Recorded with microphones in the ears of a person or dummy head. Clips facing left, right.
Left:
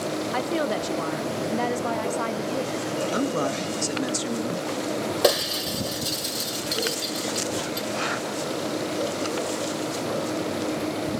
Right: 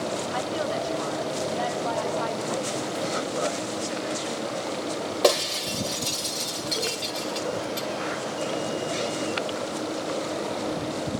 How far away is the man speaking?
About 1.6 m.